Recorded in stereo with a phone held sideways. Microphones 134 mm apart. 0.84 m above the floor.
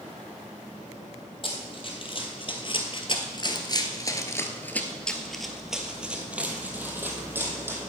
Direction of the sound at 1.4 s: 40° left (ahead or behind).